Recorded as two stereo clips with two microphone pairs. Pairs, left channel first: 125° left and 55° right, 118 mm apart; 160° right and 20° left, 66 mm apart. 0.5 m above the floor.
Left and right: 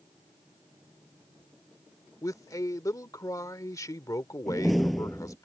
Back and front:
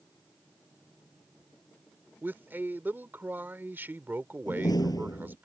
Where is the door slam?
145° right.